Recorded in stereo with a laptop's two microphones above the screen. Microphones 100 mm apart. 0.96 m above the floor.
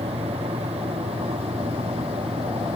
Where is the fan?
85° right.